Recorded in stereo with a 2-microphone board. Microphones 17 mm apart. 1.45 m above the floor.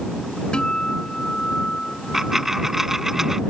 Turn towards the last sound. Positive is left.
turn(degrees=-20)  # may be behind; listen again after turning